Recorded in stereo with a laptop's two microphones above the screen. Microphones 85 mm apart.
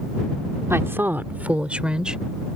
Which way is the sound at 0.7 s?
30° right (ahead or behind).